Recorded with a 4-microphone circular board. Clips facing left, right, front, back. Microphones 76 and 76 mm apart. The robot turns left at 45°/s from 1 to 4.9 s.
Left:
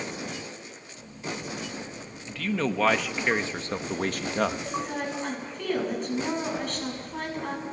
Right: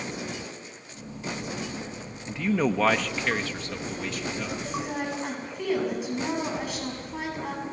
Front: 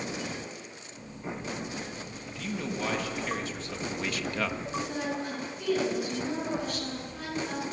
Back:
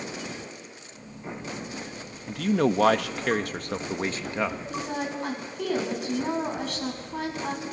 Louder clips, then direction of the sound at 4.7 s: Even, back 1 dB; 165° right.